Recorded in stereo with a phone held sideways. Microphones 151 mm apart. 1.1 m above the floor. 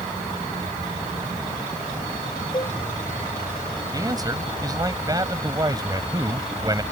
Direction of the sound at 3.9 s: 25° right (ahead or behind).